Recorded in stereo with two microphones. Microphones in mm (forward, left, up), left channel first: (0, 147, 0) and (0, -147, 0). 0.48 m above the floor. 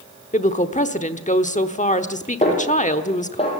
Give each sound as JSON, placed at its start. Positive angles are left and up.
{"t": 0.3, "sound": "a woman speaking", "side_deg": 25, "distance_m": 1.1}
{"t": 2.4, "sound": "a snare drum", "side_deg": 20, "distance_m": 7.5}